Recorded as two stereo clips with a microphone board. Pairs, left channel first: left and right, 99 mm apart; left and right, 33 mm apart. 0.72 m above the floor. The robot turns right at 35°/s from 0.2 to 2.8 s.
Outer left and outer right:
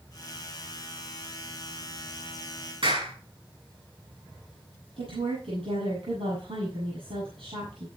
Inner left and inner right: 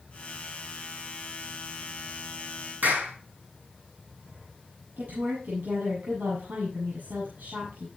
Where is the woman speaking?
75° right (ahead or behind), 7.5 m.